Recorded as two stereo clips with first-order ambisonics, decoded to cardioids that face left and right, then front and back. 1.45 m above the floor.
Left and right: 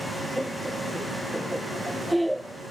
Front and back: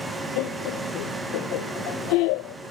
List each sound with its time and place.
0.4 s laughter: straight ahead